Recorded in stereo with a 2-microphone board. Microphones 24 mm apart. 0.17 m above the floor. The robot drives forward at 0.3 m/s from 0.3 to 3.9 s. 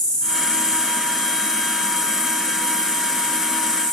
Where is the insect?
30° left (ahead or behind), 4 m; by 4.0 s 25° left (ahead or behind), 5 m.